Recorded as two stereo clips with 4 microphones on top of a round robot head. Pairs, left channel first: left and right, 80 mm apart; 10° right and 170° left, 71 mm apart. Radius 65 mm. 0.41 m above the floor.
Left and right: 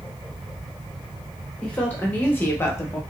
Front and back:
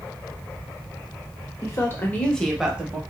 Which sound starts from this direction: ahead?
A woman speaking, at 1.6 s.